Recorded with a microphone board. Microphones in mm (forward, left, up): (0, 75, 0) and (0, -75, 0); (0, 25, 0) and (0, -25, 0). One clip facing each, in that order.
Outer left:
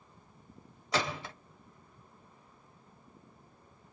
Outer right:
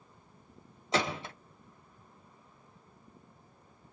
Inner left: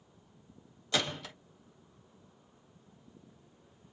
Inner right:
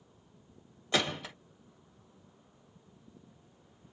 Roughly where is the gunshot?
Right.